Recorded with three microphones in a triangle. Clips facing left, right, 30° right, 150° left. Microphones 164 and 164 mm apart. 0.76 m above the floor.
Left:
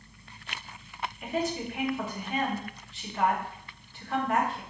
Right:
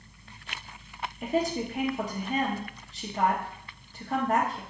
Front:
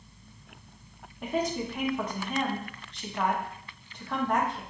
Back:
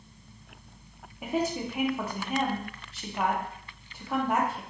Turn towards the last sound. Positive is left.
turn(degrees=-130)